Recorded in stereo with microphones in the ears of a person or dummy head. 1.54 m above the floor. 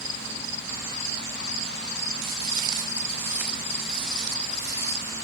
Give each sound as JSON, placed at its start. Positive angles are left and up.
{"t": 2.2, "sound": "footsteps", "side_deg": -25, "distance_m": 1.7}